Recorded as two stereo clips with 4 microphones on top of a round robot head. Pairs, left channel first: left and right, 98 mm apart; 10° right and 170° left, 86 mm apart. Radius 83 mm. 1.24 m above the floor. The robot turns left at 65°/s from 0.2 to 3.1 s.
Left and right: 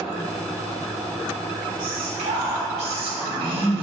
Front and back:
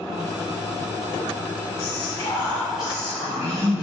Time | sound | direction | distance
1.8 | whispering | 35° right | 1.1 m